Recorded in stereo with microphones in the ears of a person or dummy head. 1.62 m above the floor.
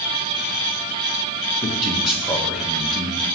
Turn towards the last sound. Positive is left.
turn(degrees=-5)  # may be behind; listen again after turning